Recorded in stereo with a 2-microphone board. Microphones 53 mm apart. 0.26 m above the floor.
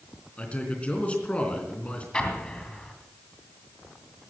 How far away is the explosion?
About 2.5 m.